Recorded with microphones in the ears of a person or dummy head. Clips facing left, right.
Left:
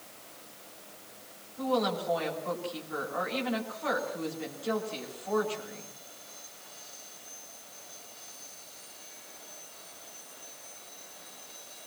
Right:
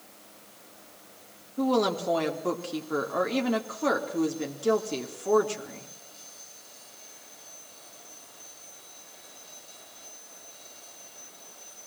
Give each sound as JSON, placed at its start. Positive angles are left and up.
{"t": 1.6, "sound": "a woman speaking", "side_deg": -60, "distance_m": 3.0}